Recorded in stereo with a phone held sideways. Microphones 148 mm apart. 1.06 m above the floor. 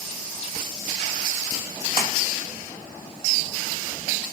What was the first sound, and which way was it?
A splash, 70° left (ahead or behind).